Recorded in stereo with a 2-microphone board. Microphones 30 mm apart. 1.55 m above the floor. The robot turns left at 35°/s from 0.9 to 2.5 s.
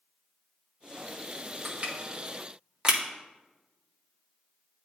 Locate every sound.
1.6 s crushing: 55° right (ahead or behind), 1.7 m; by 3.0 s 35° right (ahead or behind), 1.7 m